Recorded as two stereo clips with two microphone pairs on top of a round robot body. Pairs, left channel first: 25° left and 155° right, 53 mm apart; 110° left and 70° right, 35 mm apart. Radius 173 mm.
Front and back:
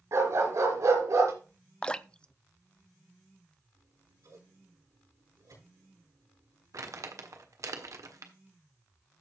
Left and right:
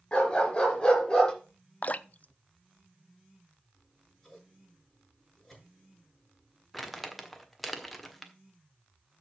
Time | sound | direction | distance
0.1 | a dog barking | 170° left | 3.5 m
1.8 | dripping | 85° left | 0.8 m
3.7 | scissors | 165° right | 7.5 m
6.7 | crumpling | 170° right | 1.8 m